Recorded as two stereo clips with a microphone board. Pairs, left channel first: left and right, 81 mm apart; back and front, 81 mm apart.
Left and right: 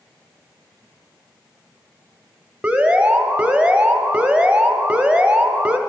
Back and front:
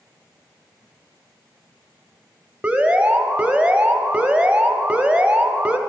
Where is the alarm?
45° right, 0.8 m.